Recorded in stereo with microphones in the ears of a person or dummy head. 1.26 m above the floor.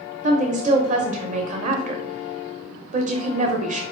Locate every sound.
0.2 s a woman speaking: 40° right (ahead or behind), 0.8 m